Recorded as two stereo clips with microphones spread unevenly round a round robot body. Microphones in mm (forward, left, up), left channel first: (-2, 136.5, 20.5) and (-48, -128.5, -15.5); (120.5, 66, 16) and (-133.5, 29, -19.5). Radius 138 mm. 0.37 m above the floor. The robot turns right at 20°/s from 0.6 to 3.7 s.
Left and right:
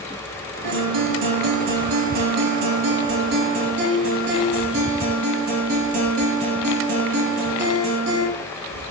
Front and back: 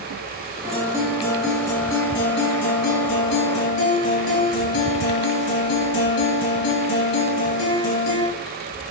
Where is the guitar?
95° right, 3 m; by 8.3 s 35° right, 3 m.